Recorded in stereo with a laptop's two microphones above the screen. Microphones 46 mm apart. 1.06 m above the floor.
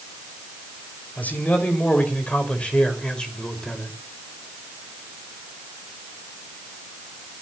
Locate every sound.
1.2 s a man speaking: 45° left (ahead or behind), 5 m; by 3.9 s 15° left (ahead or behind), 4.5 m